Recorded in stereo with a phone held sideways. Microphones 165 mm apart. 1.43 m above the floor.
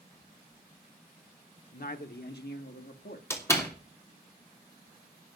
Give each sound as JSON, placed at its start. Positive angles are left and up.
{"t": 1.7, "sound": "a man speaking", "side_deg": 60, "distance_m": 1.2}
{"t": 3.3, "sound": "a door slam", "side_deg": 15, "distance_m": 2.5}